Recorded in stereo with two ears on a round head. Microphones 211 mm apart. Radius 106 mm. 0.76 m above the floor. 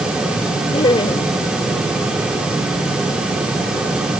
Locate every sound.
0.7 s laughter: 20° left (ahead or behind)